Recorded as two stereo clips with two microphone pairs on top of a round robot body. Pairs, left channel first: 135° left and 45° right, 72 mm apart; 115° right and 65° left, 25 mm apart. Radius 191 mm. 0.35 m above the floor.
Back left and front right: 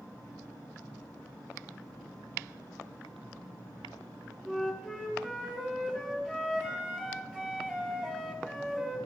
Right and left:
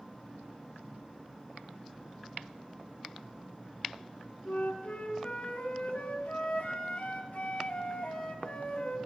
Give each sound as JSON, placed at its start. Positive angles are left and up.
{"t": 4.5, "sound": "a flute", "azimuth_deg": -145, "distance_m": 3.5}